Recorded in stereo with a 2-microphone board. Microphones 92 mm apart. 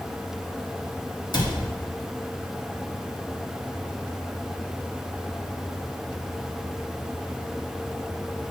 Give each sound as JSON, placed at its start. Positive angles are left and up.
{"t": 1.3, "sound": "a cupboard door", "side_deg": 55, "distance_m": 1.9}